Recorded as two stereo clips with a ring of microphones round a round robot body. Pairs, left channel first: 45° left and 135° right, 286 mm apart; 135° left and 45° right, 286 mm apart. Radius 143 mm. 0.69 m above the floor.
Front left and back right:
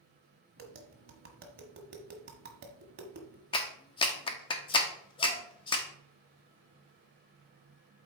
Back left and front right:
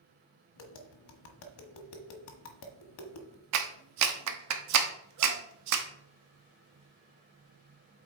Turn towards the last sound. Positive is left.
turn(degrees=-25)